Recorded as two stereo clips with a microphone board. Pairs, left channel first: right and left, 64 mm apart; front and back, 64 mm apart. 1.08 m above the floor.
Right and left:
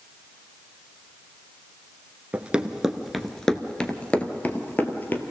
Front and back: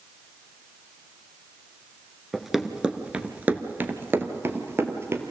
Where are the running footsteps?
90° left, 1.0 m; by 5.2 s 140° right, 1.7 m.